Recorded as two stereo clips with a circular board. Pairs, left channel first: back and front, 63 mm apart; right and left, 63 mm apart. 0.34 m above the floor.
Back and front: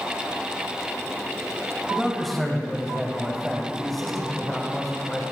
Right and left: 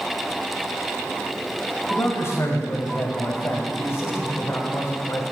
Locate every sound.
1.9 s a man speaking: 95° right, 2 m